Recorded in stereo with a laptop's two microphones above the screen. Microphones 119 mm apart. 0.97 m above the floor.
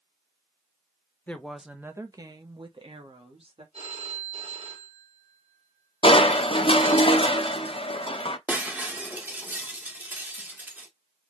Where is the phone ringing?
65° right (ahead or behind), 1.7 m.